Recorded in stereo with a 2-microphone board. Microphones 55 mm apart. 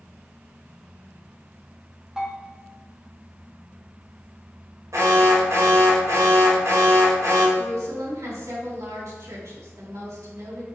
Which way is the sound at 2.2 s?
15° right (ahead or behind).